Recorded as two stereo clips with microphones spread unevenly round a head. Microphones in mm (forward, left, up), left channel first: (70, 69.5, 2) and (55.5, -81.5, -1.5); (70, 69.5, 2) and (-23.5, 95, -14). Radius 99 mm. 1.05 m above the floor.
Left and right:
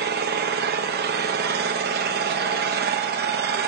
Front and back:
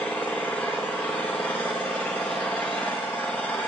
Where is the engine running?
100° right, 0.8 m.